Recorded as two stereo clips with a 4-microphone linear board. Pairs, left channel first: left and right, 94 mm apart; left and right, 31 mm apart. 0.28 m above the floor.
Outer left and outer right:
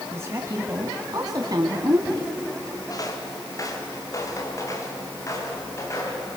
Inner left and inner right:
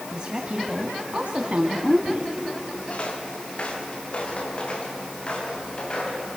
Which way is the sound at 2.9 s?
40° left (ahead or behind).